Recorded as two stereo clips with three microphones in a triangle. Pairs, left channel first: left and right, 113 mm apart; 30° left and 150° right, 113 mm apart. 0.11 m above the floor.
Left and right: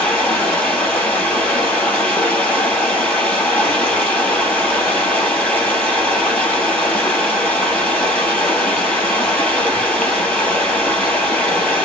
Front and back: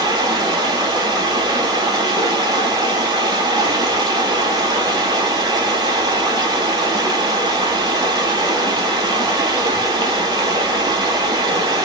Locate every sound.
0.0 s running water: 165° left, 2.5 m